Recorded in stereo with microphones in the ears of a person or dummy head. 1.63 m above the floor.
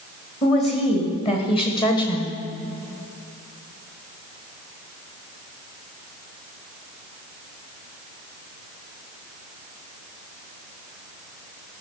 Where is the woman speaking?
35° left (ahead or behind), 2.5 m; by 2.4 s 20° left (ahead or behind), 1.2 m.